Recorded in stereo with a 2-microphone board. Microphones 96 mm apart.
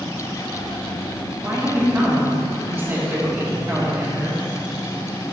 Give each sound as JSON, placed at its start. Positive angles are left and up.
{"t": 1.4, "sound": "a woman speaking", "side_deg": -25, "distance_m": 1.5}